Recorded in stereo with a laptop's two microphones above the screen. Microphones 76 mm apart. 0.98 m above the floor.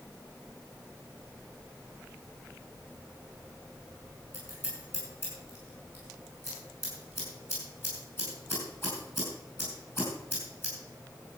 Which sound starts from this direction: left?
Scissors, at 4.3 s.